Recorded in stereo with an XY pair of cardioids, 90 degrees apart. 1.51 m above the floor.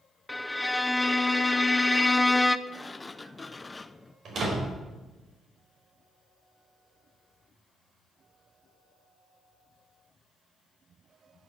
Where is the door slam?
60° right, 4 m.